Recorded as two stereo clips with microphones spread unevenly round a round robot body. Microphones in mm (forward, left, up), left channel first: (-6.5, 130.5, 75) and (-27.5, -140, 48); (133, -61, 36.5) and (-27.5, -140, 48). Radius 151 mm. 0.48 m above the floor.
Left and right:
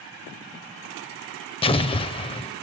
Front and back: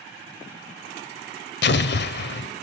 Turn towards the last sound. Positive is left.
turn(degrees=15)